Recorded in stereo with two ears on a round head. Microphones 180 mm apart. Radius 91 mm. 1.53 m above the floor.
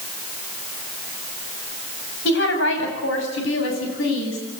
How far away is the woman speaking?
About 8 m.